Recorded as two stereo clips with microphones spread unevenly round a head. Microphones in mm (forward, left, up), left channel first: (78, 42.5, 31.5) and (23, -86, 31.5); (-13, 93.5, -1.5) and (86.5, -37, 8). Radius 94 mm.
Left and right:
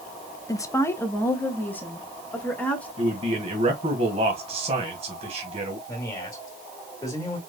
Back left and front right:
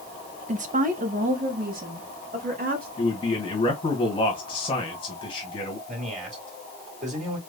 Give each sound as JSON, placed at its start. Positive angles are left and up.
{"t": 0.5, "sound": "a woman speaking", "azimuth_deg": -5, "distance_m": 0.7}
{"t": 3.0, "sound": "a man speaking", "azimuth_deg": -165, "distance_m": 1.5}
{"t": 5.9, "sound": "a man speaking", "azimuth_deg": -5, "distance_m": 2.5}